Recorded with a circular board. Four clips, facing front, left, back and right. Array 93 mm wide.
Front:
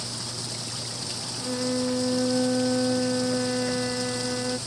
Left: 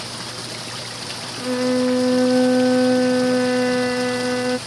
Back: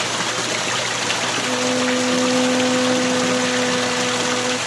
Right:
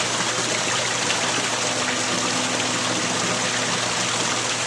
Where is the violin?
110° left.